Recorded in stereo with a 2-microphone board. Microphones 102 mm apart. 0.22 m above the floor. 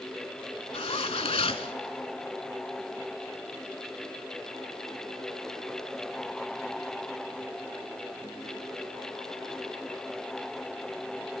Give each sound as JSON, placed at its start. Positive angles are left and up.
{"t": 0.7, "sound": "a zipper", "side_deg": 75, "distance_m": 0.5}